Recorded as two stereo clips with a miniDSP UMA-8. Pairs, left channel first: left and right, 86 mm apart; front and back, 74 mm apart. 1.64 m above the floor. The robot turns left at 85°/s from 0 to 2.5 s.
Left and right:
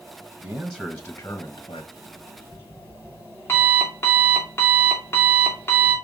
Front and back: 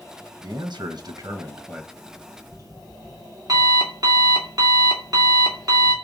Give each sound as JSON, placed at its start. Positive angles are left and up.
{"t": 0.4, "sound": "a man speaking", "azimuth_deg": -135, "distance_m": 1.2}
{"t": 1.9, "sound": "an alarm clock", "azimuth_deg": -160, "distance_m": 2.5}